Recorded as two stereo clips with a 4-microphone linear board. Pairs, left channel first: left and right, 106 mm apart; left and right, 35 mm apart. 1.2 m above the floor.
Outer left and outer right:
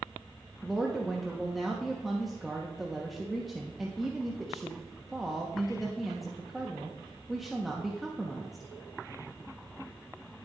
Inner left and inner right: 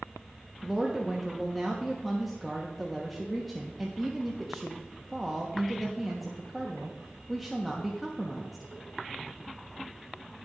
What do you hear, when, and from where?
0.6 s a woman speaking: centre (ahead or behind), 1.3 m